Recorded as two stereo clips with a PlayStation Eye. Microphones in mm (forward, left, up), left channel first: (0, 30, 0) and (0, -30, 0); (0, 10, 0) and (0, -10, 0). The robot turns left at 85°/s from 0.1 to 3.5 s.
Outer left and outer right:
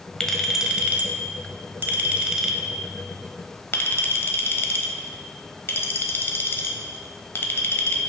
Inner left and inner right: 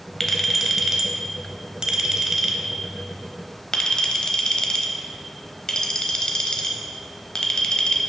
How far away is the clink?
About 0.9 m.